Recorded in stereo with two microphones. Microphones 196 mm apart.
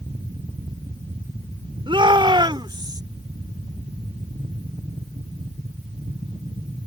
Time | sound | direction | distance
1.9 | a shout | 25° right (ahead or behind) | ?